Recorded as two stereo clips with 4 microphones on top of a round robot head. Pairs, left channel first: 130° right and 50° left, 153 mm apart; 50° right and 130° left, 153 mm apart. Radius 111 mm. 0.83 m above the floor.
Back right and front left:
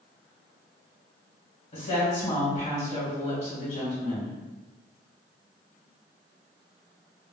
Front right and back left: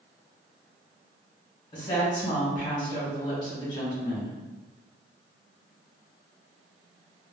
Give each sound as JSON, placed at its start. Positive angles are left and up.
{"t": 1.7, "sound": "a woman speaking", "azimuth_deg": -105, "distance_m": 1.5}